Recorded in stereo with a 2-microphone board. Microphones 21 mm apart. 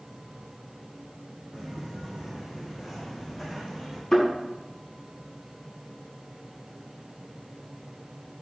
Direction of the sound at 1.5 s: 15° right (ahead or behind).